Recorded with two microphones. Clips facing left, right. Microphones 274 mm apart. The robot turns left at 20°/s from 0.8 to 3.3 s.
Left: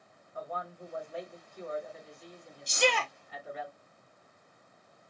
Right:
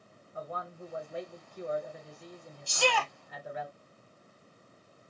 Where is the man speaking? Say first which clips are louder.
Even; 30° right, 1.2 m; by 3.7 s 80° right, 1.2 m.